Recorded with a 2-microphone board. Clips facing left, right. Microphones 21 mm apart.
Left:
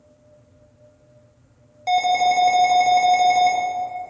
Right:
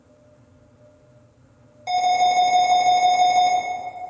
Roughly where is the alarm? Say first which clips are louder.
Even; centre.